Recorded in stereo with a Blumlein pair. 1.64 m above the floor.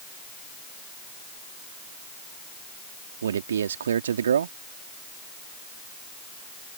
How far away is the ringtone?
I don't hear a ringtone.